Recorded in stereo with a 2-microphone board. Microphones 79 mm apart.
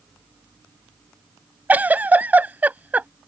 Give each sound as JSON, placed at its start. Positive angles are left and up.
{"t": 1.7, "sound": "a giggle", "side_deg": -20}